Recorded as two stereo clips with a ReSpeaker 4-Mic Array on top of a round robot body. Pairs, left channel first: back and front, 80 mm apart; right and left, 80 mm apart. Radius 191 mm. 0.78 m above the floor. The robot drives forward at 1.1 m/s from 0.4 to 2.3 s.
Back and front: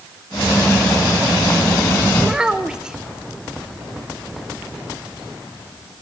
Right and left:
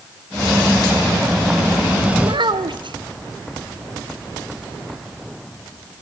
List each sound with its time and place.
2.2 s a child speaking: 75° left, 1.1 m; by 3.0 s 80° left, 1.1 m